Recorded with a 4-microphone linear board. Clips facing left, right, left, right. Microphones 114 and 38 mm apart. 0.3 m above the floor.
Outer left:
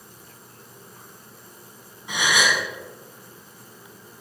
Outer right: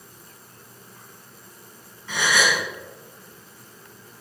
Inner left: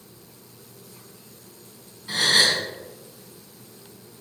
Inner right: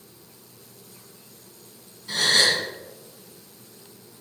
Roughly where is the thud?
No thud in this recording.